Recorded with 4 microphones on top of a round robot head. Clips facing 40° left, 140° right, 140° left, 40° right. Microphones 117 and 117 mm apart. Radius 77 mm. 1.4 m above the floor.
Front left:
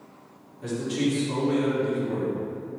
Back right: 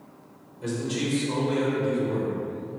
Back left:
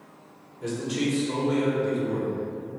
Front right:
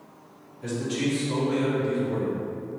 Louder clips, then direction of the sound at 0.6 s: Front left 2 dB, even; 145° left.